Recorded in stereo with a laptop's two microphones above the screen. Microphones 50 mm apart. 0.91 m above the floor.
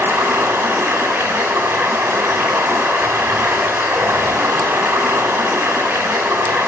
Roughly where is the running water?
Right.